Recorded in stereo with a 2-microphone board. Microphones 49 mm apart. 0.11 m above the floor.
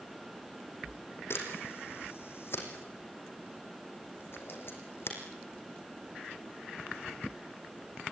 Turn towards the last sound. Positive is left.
turn(degrees=50)  # may be behind; listen again after turning